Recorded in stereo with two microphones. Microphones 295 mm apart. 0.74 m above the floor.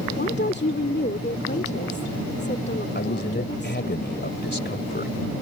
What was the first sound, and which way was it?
A woman speaking, 35° left (ahead or behind).